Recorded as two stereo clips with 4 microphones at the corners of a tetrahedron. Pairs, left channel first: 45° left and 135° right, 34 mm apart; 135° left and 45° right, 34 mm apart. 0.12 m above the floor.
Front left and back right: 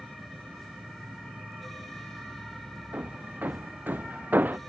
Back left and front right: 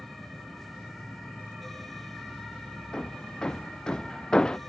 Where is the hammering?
160° right.